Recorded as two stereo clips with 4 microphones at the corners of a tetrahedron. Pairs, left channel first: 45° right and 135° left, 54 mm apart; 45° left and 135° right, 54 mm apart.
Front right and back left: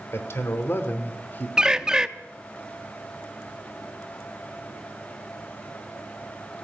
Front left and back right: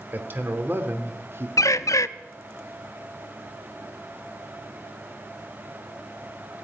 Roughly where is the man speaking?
Right.